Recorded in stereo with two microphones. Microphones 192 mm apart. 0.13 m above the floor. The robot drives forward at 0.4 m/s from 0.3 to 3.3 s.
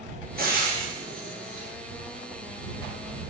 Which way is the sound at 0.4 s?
50° right (ahead or behind).